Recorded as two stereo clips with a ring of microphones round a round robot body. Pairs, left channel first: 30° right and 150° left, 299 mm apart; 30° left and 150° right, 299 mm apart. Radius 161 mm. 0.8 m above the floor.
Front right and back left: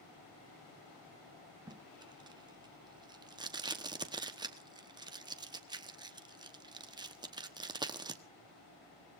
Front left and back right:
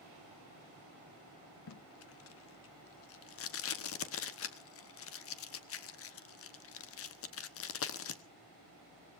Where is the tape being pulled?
75° left, 1.0 m.